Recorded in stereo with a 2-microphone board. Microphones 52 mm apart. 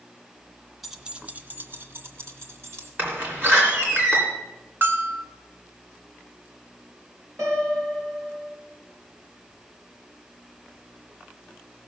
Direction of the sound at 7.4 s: 75° right (ahead or behind).